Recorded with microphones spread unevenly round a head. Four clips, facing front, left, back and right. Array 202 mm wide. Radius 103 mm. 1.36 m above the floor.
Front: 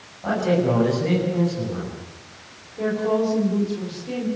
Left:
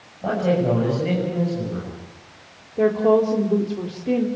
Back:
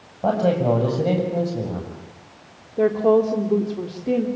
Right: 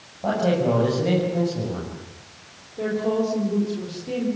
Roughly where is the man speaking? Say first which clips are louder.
Left 1 dB, back 2 dB; behind.